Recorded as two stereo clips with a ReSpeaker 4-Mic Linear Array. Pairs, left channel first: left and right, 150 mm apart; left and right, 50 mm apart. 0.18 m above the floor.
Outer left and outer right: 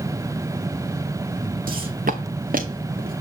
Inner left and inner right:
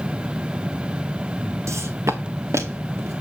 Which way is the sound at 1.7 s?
80° right.